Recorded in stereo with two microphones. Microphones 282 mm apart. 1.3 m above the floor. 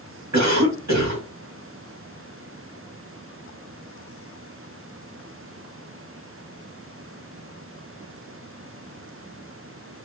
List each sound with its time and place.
0.3 s a cough: 70° right (ahead or behind), 2.5 m